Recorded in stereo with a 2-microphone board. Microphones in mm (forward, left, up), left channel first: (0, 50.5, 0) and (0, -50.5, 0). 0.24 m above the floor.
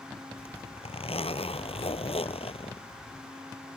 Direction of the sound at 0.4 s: 70° left (ahead or behind).